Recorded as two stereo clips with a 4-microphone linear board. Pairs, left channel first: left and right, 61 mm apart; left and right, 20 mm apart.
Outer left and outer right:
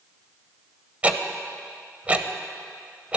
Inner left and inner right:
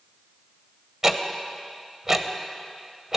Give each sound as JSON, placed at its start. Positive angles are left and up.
{"t": 1.0, "sound": "ticking", "side_deg": -20, "distance_m": 0.6}